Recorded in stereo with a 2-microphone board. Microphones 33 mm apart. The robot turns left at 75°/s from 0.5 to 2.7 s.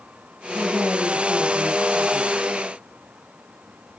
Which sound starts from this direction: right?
A woman speaking, at 0.5 s.